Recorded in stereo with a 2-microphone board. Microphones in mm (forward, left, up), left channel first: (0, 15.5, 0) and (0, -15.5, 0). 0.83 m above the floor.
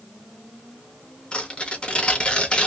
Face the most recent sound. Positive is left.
turn(degrees=35)  # may be behind; listen again after turning